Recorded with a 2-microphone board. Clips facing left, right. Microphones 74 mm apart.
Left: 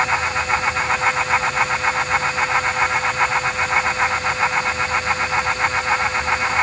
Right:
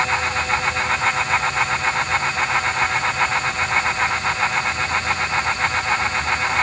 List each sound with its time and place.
Only background noise.